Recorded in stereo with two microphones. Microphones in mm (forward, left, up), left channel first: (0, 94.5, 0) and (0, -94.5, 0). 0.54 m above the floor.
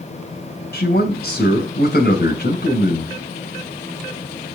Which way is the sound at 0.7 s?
70° left (ahead or behind).